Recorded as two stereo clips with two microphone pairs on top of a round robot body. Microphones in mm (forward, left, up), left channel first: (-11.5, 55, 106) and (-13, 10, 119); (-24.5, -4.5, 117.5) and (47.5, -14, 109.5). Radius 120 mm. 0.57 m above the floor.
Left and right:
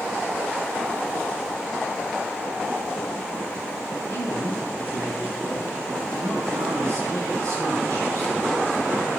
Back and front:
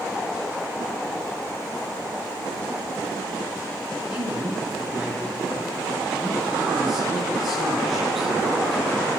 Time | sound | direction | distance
4.1 | a man speaking | 80° right | 8 m